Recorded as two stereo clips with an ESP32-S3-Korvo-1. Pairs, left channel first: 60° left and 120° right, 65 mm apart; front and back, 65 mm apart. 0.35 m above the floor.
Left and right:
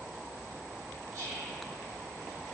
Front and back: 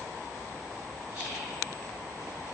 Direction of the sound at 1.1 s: 115° right.